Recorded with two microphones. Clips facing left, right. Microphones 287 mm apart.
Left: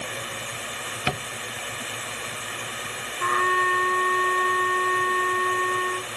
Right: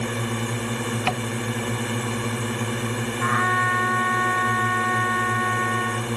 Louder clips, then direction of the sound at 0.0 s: Right 10 dB; 60° right (ahead or behind).